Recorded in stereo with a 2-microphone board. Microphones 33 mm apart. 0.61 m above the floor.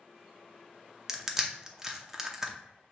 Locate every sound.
1.1 s crushing: 15° right (ahead or behind), 0.7 m